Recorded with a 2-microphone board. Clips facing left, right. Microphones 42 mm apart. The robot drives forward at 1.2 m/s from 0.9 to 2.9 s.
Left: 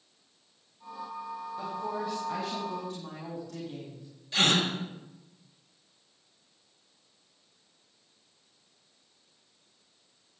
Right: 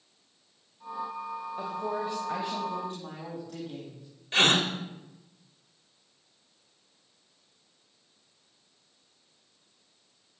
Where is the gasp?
45° right (ahead or behind), 1.8 m.